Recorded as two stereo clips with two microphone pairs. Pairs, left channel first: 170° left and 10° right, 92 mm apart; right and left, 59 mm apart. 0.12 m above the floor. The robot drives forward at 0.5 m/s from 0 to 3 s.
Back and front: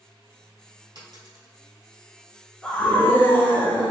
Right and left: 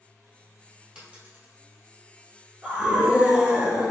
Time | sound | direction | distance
0.9 | a dropped coin | 25° left | 1.4 m
2.6 | a scream | 105° left | 1.1 m